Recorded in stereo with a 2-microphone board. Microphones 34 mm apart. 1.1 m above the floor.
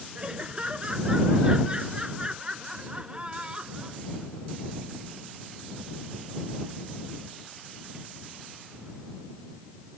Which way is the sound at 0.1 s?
30° right (ahead or behind).